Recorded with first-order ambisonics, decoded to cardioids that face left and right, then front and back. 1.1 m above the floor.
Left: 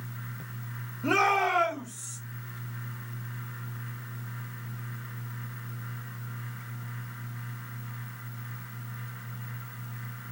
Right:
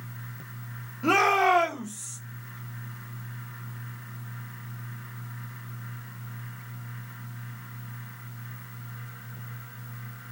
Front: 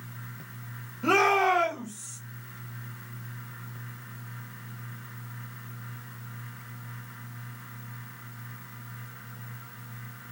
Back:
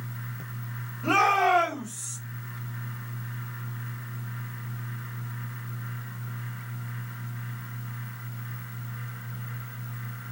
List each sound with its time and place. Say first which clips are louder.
1.0 s a shout: right 3 dB, back 1 dB; 60° right, 1.3 m; by 2.2 s 145° right, 1.2 m